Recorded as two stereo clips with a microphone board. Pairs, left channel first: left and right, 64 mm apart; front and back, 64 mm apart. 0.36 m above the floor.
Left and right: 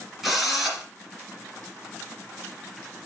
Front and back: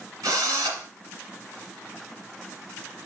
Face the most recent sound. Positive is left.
turn(degrees=180)